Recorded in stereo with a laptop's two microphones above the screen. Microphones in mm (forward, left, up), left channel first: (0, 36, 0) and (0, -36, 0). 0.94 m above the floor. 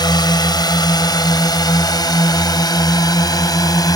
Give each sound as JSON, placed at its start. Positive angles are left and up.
{"t": 0.0, "sound": "a drone", "side_deg": 70}